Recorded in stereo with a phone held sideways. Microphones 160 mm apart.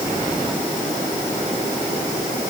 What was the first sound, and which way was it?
Only background noise.